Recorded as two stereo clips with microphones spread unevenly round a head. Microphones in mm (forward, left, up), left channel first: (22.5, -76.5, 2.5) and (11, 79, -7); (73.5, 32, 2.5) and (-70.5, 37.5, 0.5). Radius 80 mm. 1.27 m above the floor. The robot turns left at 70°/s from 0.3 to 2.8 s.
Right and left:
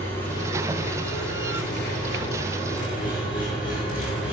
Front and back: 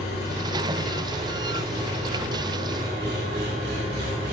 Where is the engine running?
10° right, 6.5 m; by 4.3 s 175° left, 6.5 m.